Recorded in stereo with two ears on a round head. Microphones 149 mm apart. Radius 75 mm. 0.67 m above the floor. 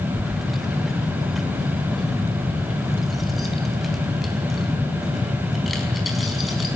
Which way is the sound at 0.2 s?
Centre (ahead or behind).